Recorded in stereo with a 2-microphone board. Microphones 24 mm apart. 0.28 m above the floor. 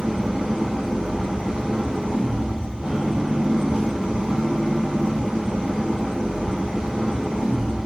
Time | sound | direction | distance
0.0 | an engine running | 45° right (ahead or behind) | 5.5 m